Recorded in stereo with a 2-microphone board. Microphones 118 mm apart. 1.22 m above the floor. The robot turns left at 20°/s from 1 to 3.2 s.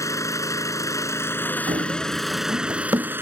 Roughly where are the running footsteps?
Right.